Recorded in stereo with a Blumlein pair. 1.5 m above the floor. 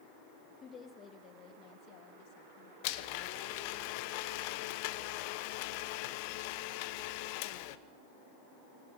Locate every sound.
0.6 s a woman speaking: 20° left, 2.5 m; by 2.7 s 50° left, 3 m
2.8 s a blender: 45° left, 1.0 m